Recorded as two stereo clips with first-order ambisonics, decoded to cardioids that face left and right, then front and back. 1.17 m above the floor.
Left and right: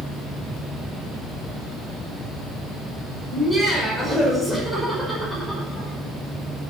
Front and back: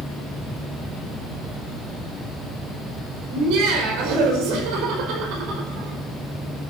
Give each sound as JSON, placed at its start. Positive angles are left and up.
{"t": 3.3, "sound": "laughter", "azimuth_deg": 180, "distance_m": 5.5}